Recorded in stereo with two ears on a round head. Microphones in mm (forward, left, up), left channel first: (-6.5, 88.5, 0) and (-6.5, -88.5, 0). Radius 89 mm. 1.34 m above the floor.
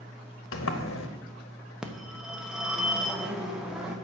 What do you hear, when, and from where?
0.5 s a sliding door: 75° left (ahead or behind), 1.2 m
1.8 s a phone ringing: 5° right (ahead or behind), 1.2 m